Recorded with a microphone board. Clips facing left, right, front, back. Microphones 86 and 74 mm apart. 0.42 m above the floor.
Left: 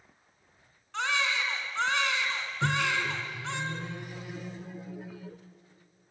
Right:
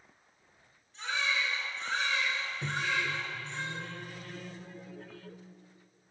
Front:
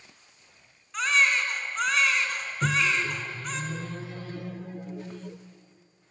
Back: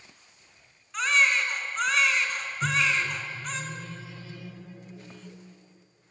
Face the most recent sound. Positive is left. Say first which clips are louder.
# left 5 dB, even
turn(degrees=15)